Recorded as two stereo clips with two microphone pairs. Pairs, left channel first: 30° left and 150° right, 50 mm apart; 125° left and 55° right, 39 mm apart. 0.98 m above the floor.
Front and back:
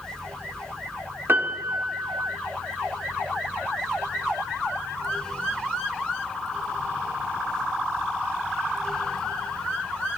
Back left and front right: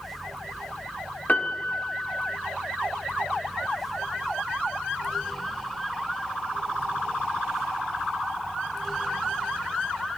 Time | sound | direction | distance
1.3 | a piano | 175° left | 1.5 m